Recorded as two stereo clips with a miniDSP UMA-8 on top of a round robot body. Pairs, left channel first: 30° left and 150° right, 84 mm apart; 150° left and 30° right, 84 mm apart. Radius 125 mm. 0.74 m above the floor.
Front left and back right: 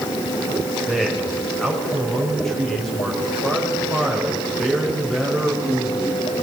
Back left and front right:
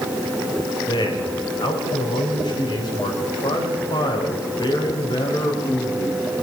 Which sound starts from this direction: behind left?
A man speaking, at 0.9 s.